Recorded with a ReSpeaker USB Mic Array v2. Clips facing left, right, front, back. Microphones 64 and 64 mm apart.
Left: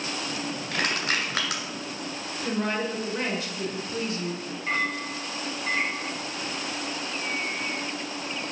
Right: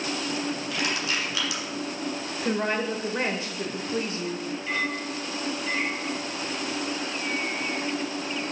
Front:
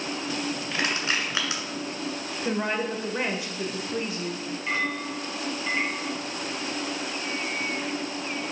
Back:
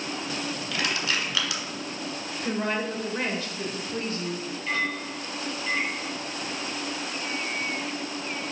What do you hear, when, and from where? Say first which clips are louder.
0.7 s crushing: left 5 dB, front 1 dB; 60° left, 1.9 m
2.4 s a woman speaking: right 1 dB, front 1 dB; 60° right, 1.0 m
4.7 s a clink: left 2 dB, even; 60° left, 1.6 m